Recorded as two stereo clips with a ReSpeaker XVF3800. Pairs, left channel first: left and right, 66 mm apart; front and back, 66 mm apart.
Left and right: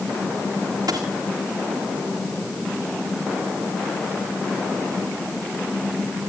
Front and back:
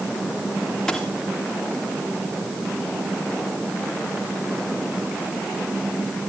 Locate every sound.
0.9 s a dropped coin: 85° right, 3.5 m